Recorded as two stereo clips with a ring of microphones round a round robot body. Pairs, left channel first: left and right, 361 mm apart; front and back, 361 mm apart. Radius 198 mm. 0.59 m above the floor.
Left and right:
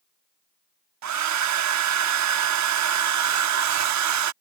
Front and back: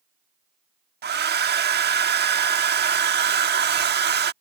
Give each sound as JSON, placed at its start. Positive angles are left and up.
{"t": 1.0, "sound": "a hair dryer", "azimuth_deg": -120}